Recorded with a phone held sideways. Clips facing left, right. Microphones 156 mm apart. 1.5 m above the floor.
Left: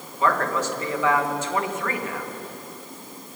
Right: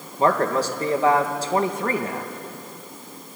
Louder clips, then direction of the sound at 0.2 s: Right 3 dB; 35° right (ahead or behind).